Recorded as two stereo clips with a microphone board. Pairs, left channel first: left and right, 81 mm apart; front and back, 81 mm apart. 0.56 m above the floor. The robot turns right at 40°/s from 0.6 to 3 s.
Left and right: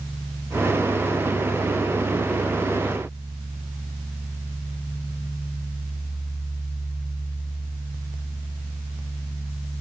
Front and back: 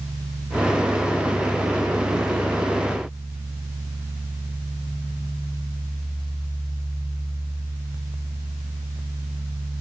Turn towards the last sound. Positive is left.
No sound to turn to.